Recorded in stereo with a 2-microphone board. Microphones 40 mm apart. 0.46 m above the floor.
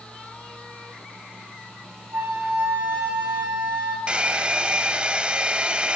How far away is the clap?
No clap in this recording.